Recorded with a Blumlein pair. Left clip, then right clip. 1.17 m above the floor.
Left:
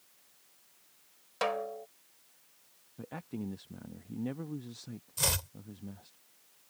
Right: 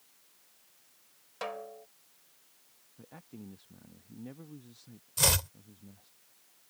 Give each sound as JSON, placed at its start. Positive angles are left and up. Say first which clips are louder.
{"t": 1.4, "sound": "a snare drum", "louder": "left 7 dB", "azimuth_deg": 20}
{"t": 3.0, "sound": "a man speaking", "louder": "left 9 dB", "azimuth_deg": 25}
{"t": 5.2, "sound": "chopping", "louder": "right 4 dB", "azimuth_deg": -15}